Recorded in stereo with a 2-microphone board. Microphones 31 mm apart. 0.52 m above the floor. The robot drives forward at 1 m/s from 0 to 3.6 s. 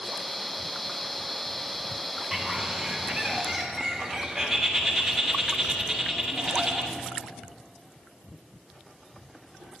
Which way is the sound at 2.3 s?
10° right (ahead or behind).